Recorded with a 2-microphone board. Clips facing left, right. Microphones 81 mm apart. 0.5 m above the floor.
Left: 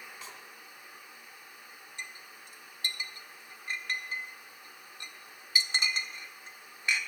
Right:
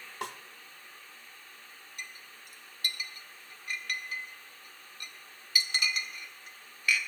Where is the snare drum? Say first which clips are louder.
Right 13 dB; 65° right (ahead or behind), 0.7 m.